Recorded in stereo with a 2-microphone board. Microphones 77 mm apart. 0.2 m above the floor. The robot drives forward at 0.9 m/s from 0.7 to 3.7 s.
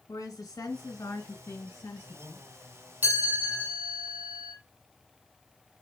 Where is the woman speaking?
40° left (ahead or behind), 2.0 m; by 2.5 s 25° left (ahead or behind), 3 m.